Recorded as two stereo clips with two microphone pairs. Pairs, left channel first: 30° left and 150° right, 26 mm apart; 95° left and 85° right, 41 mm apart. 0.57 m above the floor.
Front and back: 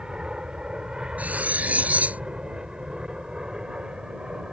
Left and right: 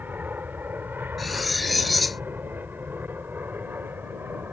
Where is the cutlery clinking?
175° right.